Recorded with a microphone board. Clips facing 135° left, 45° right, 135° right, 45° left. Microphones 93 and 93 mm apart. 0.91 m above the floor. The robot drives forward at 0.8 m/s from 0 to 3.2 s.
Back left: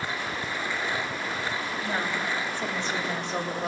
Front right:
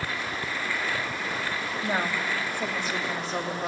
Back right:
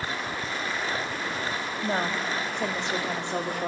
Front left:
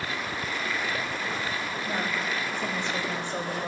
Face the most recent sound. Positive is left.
turn(degrees=-135)